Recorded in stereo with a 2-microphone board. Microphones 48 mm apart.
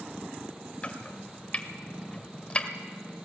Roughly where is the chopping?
Left.